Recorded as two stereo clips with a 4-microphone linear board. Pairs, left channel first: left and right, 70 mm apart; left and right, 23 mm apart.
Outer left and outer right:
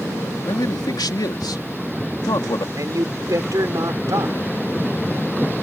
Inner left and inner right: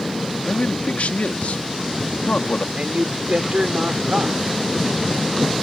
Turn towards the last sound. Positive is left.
turn(degrees=-55)  # may be behind; listen again after turning